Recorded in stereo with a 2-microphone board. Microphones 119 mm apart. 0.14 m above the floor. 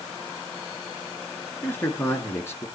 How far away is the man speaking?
About 2.5 m.